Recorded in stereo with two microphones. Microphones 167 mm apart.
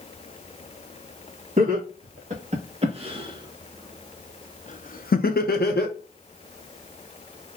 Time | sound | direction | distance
1.6 | laughter | 50° right (ahead or behind) | 1.7 m